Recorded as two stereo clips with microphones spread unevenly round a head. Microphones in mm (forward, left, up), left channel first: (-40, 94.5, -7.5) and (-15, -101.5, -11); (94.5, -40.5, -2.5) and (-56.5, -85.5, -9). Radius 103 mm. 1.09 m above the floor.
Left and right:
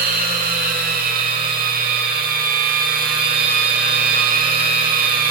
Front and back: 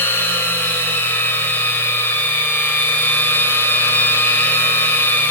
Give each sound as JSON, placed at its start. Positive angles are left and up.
{"t": 0.0, "sound": "a machine running", "azimuth_deg": -50, "distance_m": 1.1}